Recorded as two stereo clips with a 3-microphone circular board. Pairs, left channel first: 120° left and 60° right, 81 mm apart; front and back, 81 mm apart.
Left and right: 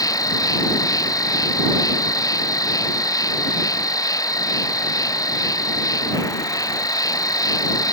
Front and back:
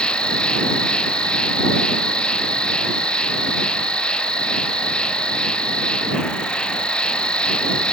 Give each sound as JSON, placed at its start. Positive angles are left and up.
{"t": 0.0, "sound": "an insect", "azimuth_deg": 80}